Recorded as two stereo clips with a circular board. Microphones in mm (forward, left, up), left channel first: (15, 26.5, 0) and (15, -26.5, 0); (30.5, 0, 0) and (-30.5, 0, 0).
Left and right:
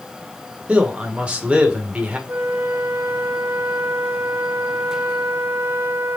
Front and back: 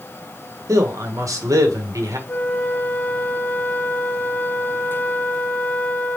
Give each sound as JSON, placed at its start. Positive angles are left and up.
{"t": 0.7, "sound": "a man speaking", "azimuth_deg": -155, "distance_m": 1.2}
{"t": 2.3, "sound": "a flute", "azimuth_deg": -60, "distance_m": 1.0}